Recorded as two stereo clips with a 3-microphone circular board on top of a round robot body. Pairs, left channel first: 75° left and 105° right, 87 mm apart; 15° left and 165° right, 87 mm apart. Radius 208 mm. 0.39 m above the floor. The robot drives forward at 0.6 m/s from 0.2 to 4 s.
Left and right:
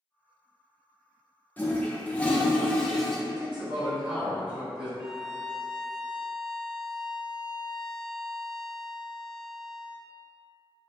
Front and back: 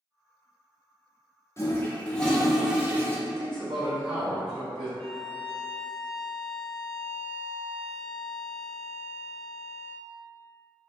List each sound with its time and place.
1.6 s a toilet flushing: 25° left, 1.2 m; by 3.2 s 155° left, 1.1 m
3.3 s a man speaking: 175° left, 1.3 m
5.0 s a violin: 155° right, 1.2 m